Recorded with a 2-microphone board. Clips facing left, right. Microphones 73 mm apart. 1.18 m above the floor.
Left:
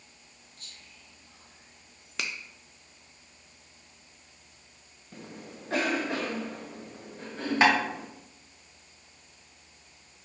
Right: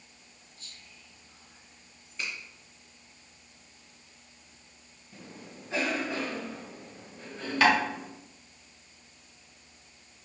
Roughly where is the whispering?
Left.